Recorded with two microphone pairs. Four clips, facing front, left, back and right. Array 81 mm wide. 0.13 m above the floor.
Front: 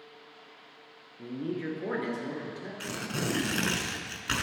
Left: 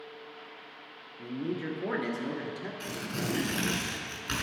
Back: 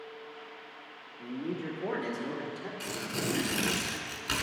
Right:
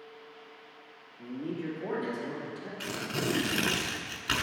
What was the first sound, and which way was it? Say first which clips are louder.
A man speaking: left 2 dB, front 2 dB; 25° left.